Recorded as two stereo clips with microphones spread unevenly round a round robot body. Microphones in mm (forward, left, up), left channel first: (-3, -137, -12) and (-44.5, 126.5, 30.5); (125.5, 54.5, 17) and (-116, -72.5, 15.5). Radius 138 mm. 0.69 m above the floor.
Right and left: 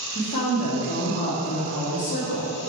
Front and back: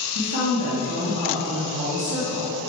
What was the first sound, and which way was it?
A woman speaking, 125° right.